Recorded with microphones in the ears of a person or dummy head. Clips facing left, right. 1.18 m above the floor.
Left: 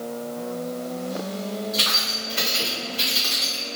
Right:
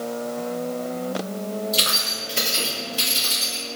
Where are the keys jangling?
40° right (ahead or behind), 1.0 m; by 3.6 s 75° right (ahead or behind), 2.5 m.